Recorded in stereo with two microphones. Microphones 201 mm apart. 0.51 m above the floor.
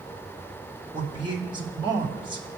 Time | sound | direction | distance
0.9 | a man speaking | 25° right (ahead or behind) | 1.5 m